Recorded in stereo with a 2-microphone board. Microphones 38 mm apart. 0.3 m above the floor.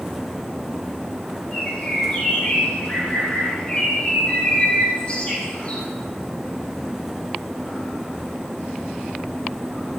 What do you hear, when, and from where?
1.5 s a bird: 35° left (ahead or behind), 4 m